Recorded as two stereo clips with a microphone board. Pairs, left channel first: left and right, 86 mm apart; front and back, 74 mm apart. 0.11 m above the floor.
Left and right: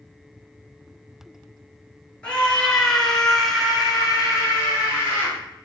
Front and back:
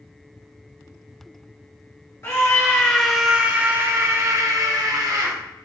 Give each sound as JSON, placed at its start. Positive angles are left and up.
{"t": 2.2, "sound": "a scream", "azimuth_deg": 20, "distance_m": 2.0}